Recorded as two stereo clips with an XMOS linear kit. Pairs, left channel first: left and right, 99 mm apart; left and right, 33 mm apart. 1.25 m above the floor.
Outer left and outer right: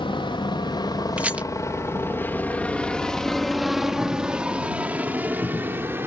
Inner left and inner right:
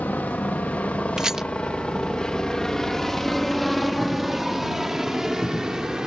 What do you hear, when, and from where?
0.0 s a helicopter: 55° left (ahead or behind); by 6.1 s 20° right (ahead or behind)
1.2 s a rattle: 10° right (ahead or behind)